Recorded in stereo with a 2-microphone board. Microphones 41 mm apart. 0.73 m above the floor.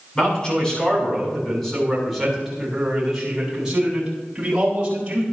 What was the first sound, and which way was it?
A man speaking, 25° left (ahead or behind).